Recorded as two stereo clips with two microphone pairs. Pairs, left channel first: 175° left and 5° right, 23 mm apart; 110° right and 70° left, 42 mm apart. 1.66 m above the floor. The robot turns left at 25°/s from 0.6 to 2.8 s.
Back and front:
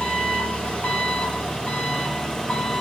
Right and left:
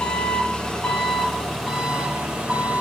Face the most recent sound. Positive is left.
turn(degrees=130)